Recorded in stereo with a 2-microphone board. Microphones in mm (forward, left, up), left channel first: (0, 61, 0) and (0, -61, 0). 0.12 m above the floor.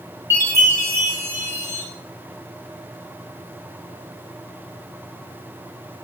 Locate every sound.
0.3 s a chime: 20° right (ahead or behind), 8.5 m